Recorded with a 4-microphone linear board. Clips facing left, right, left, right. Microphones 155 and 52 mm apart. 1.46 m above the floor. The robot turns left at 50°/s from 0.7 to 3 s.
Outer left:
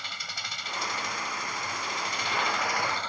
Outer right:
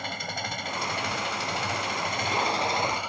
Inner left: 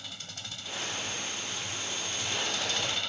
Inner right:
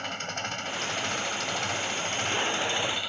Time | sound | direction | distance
0.0 | an engine running | 55° right | ?